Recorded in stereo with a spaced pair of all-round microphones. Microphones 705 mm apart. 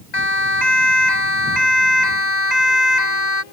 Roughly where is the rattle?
I don't hear a rattle.